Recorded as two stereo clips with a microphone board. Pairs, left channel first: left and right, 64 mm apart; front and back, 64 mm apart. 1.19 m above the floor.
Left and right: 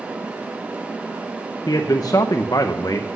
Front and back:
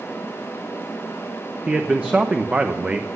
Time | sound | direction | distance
1.7 | a man speaking | 110° left | 0.8 m